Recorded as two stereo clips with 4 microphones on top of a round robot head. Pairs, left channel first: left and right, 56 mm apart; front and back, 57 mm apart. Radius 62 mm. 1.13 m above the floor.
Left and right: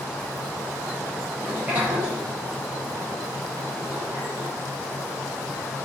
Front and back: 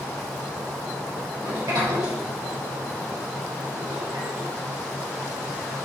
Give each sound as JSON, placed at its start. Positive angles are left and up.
{"t": 1.4, "sound": "a sliding door", "azimuth_deg": -155, "distance_m": 4.0}